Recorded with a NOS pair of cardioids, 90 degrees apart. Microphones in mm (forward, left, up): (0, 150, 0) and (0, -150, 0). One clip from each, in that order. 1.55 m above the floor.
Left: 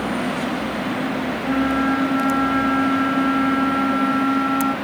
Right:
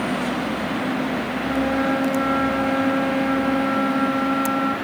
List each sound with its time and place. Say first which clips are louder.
1.4 s a flute: left 2 dB; 25° left, 3 m